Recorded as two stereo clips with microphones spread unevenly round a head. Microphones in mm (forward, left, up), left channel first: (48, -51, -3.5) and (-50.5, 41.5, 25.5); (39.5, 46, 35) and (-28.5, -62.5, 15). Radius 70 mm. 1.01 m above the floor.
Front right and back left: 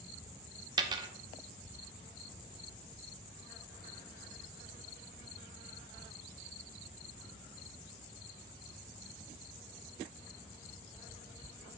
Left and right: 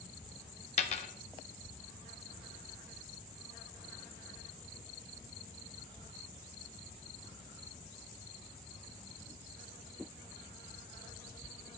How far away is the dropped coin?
About 0.6 m.